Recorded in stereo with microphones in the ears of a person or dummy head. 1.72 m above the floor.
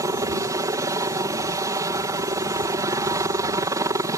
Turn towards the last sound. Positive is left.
turn(degrees=-20)  # may be behind; listen again after turning